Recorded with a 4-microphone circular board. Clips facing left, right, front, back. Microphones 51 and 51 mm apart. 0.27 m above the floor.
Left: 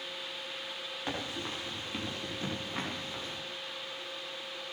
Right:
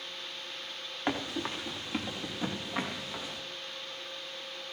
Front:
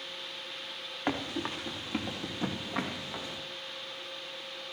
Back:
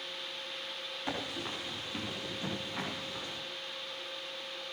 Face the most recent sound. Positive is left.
turn(degrees=-10)